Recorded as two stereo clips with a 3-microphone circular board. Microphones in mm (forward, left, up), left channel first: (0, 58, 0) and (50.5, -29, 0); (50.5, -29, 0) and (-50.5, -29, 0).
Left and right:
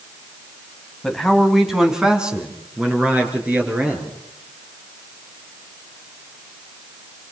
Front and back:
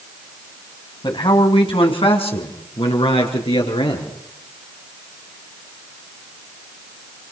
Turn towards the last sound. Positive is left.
turn(degrees=15)